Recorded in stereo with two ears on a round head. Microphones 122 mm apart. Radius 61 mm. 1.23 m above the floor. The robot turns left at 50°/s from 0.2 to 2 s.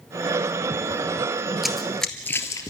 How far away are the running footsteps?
About 1.5 m.